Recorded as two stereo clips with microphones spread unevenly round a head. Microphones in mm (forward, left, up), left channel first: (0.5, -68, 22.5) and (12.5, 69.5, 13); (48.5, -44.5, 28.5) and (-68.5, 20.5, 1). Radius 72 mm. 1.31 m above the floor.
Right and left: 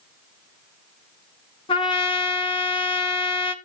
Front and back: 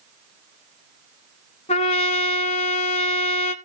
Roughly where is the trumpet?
Ahead right.